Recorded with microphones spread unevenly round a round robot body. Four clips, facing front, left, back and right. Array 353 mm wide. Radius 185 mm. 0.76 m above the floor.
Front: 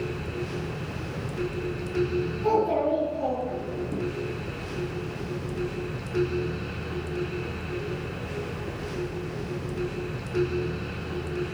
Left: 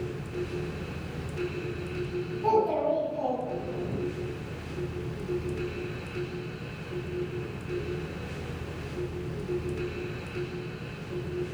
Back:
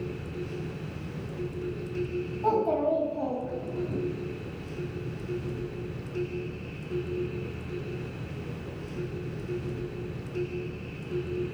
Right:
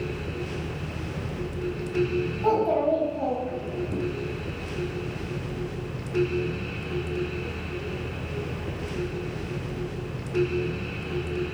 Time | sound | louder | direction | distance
2.4 | a child speaking | right 2 dB, front 1 dB | 125° right | 3 m